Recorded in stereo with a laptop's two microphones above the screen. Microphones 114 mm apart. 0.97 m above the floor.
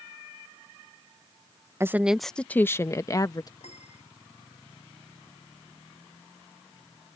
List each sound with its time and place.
1.8 s a woman speaking: 20° right (ahead or behind); by 3.5 s 35° left (ahead or behind)
3.6 s a piano: 80° left